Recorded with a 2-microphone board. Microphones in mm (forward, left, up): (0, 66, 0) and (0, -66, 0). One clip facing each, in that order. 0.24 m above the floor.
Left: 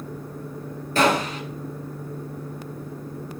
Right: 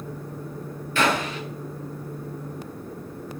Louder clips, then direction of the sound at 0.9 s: Left 3 dB; 40° left (ahead or behind).